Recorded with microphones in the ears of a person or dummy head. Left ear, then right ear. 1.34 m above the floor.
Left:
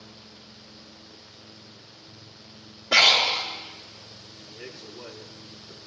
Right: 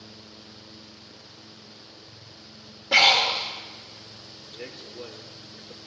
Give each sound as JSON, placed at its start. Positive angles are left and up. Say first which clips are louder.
{"t": 2.9, "sound": "breathing", "louder": "even", "side_deg": -10, "distance_m": 2.0}
{"t": 4.4, "sound": "a man speaking", "louder": "right 2 dB", "side_deg": -35, "distance_m": 3.0}